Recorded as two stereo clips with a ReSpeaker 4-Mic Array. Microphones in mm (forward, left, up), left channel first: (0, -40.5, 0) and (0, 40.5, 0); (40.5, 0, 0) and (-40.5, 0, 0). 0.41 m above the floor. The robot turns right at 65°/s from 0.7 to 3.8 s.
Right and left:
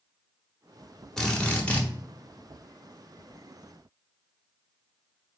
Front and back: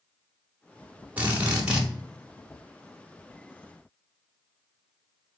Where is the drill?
165° right, 0.8 m; by 1.9 s 120° right, 0.8 m.